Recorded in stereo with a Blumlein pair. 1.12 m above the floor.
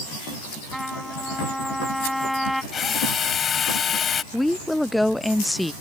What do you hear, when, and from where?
0.7 s a trumpet: straight ahead
2.7 s a drill: 25° left
4.3 s a woman speaking: 5° left